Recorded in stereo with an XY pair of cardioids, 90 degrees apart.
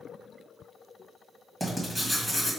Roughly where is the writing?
Ahead.